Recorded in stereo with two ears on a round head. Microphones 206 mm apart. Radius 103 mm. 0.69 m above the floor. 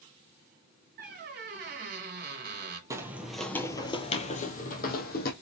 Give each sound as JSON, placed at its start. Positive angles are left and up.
{"t": 1.0, "sound": "a squeak", "side_deg": -40, "distance_m": 1.2}
{"t": 2.9, "sound": "footsteps", "side_deg": -15, "distance_m": 0.8}